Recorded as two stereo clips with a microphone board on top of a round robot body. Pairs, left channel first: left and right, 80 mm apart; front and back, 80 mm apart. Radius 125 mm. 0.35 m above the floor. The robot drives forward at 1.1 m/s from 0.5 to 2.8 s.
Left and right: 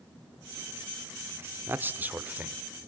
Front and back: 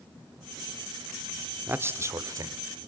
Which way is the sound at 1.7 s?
135° right.